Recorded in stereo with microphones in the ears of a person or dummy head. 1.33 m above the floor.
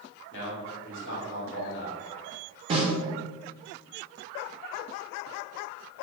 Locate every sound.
0.3 s a man speaking: 65° left (ahead or behind), 1.2 m
2.7 s a snare drum: 40° right (ahead or behind), 0.7 m